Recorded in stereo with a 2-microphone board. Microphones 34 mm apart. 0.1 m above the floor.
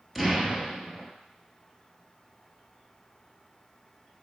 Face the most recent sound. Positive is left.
turn(degrees=0)  # may be behind; listen again after turning